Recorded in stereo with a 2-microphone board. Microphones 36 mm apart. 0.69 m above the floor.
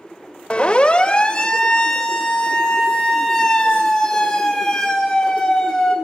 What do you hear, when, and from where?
0.5 s a siren: 30° left (ahead or behind), 2.5 m; by 5.9 s 10° left (ahead or behind), 6.5 m